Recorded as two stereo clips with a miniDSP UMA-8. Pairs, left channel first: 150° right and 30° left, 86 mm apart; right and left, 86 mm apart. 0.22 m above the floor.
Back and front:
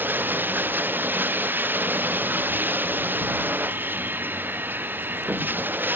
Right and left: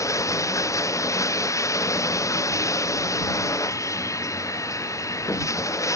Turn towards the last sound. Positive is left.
turn(degrees=-35)